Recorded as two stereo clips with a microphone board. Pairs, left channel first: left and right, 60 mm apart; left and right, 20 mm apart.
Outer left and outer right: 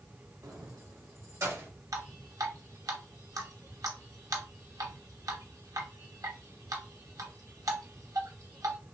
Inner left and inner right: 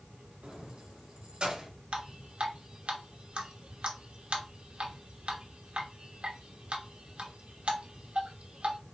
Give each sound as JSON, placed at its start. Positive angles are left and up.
{"t": 0.4, "sound": "keys jangling", "side_deg": -80, "distance_m": 1.0}
{"t": 1.9, "sound": "dripping", "side_deg": -80, "distance_m": 0.9}